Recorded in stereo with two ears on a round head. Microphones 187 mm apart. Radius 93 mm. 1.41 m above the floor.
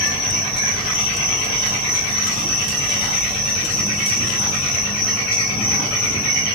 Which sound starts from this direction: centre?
An insect, at 0.0 s.